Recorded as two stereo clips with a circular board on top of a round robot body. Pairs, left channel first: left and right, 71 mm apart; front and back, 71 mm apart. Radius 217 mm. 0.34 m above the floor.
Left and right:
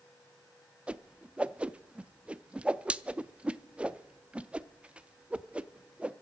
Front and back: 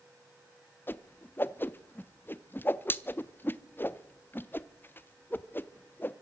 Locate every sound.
0.9 s a whoosh: 30° right, 0.8 m